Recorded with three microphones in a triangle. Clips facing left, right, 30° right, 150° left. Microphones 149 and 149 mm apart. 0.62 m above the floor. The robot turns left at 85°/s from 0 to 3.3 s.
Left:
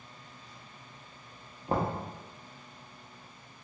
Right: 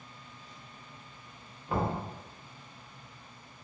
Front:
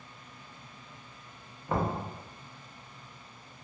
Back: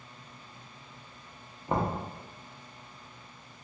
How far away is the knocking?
About 0.6 m.